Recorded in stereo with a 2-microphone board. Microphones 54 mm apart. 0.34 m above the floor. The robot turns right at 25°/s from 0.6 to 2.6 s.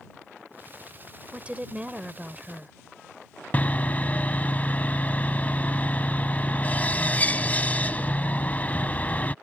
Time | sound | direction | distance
1.3 | a woman speaking | 25° right (ahead or behind) | ?
3.5 | sawing | 30° left (ahead or behind) | ?